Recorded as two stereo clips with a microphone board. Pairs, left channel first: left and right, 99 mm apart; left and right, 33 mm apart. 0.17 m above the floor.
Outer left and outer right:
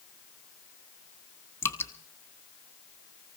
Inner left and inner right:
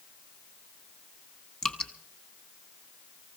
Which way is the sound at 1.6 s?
25° left (ahead or behind).